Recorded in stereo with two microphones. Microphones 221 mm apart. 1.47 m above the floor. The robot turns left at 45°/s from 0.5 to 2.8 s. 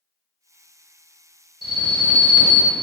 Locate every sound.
1.6 s an alarm: 25° right, 1.8 m; by 2.8 s 80° right, 1.8 m